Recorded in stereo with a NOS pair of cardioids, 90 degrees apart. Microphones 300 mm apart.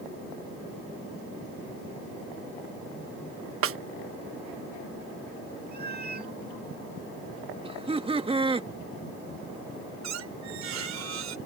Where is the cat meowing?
35° right.